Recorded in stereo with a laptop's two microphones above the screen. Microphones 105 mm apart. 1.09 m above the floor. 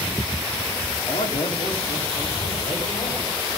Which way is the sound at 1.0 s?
85° left.